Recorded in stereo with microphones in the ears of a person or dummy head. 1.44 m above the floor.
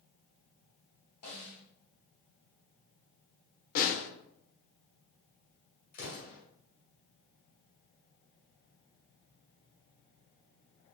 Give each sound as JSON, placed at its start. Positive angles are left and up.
{"t": 1.2, "sound": "a snare drum", "side_deg": 55, "distance_m": 1.8}
{"t": 3.8, "sound": "a snare drum", "side_deg": 50, "distance_m": 0.7}
{"t": 5.9, "sound": "an explosion", "side_deg": 50, "distance_m": 2.0}